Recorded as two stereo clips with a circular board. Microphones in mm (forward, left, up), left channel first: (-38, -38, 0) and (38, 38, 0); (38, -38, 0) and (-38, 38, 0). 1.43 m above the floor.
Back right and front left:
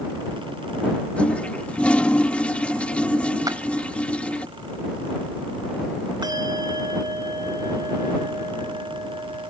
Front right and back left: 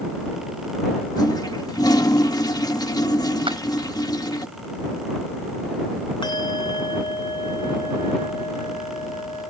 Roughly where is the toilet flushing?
Ahead right.